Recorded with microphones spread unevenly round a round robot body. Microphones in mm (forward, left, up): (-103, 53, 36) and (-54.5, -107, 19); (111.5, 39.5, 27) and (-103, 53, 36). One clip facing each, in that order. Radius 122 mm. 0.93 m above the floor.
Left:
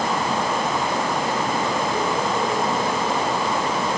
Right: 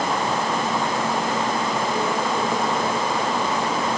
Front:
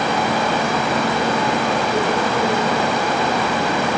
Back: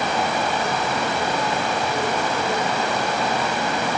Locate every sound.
Only background noise.